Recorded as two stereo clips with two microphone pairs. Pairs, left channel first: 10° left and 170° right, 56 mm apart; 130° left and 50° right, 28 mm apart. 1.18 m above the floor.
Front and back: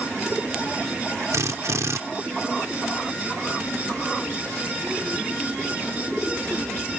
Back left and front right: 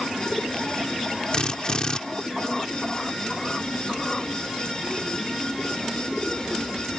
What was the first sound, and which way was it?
A drill, 175° right.